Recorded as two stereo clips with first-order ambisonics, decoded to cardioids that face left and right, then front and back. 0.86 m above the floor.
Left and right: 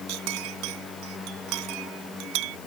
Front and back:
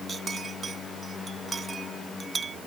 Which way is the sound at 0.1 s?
110° right.